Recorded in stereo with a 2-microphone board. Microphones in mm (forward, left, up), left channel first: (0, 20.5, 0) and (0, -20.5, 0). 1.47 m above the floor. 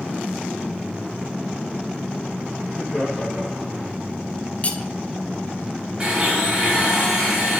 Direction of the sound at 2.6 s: 20° left (ahead or behind).